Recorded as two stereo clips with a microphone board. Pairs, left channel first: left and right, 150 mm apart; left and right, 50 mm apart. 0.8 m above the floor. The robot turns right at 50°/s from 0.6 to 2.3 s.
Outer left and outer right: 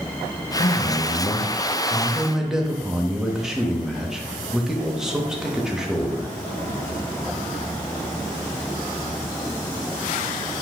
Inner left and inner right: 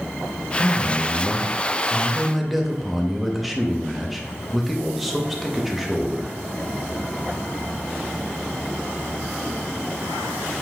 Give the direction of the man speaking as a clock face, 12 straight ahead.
9 o'clock.